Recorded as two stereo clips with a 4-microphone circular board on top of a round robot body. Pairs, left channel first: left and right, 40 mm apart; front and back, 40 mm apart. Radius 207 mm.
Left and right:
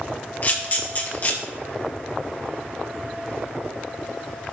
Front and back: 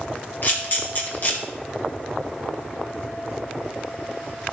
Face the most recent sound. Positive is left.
turn(degrees=40)